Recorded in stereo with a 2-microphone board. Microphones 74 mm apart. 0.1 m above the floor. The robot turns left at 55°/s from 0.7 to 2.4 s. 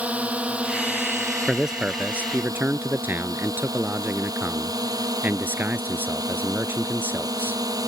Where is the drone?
20° right (ahead or behind); by 7.9 s 60° right (ahead or behind).